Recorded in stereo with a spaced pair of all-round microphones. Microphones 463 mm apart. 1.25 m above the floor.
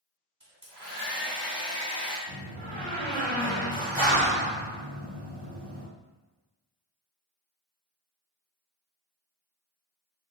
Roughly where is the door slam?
Right.